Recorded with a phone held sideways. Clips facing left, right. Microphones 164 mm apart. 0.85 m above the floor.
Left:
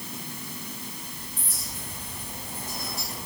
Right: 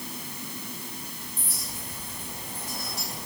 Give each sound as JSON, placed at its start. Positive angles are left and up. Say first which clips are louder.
{"t": 1.4, "sound": "a clink", "louder": "right 1 dB", "side_deg": -70, "distance_m": 9.0}